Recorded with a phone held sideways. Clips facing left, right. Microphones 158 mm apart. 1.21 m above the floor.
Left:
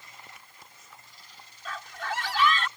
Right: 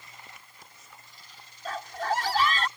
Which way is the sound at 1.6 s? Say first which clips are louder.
Right 6 dB; 40° right (ahead or behind).